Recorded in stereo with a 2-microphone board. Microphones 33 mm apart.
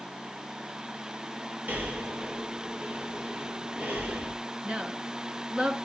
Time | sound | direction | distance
1.7 | breathing | 55° right (ahead or behind) | 2.5 m
4.6 | a woman speaking | 30° right (ahead or behind) | 1.5 m